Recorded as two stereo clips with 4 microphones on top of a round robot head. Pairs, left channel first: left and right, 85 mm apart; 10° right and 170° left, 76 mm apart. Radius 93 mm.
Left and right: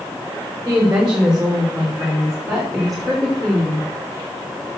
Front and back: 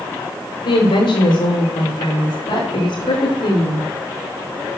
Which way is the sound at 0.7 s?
15° right.